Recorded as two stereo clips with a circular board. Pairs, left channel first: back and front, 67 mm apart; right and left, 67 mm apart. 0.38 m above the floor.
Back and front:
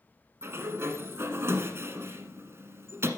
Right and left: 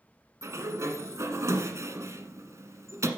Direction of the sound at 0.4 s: 50° left.